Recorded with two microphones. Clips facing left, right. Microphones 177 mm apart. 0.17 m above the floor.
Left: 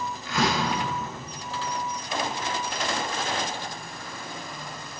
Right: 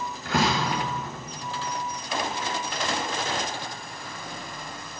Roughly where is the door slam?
Right.